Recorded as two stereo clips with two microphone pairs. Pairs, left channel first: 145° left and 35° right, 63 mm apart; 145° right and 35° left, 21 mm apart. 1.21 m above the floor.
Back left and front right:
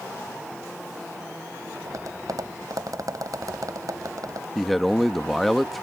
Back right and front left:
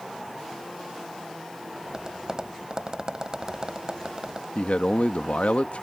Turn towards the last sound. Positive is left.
turn(degrees=-130)